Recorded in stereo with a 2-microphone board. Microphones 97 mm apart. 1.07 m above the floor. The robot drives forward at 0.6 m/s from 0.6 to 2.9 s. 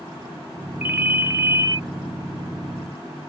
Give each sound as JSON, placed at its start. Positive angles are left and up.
{"t": 0.8, "sound": "a ringtone", "side_deg": -20}